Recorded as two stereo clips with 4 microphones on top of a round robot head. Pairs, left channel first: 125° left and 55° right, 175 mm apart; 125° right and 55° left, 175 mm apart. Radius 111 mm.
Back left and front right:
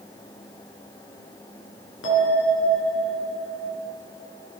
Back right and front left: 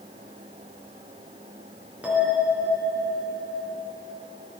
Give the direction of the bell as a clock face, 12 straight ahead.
7 o'clock.